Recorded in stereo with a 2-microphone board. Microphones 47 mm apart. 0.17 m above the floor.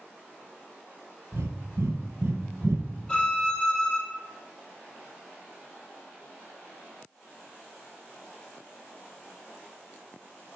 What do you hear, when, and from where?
1.3 s breathing: 65° right (ahead or behind), 1.6 m
3.1 s a violin: 20° left (ahead or behind), 3 m